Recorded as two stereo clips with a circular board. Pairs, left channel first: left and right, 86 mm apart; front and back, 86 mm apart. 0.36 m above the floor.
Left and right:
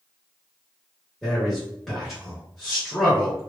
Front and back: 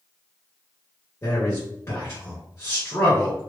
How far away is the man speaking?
About 1.3 m.